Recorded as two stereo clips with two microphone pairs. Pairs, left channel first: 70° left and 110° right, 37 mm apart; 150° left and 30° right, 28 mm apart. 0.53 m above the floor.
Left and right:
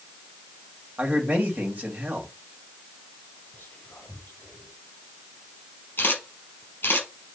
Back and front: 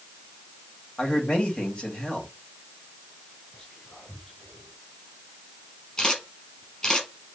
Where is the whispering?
95° left, 3 m.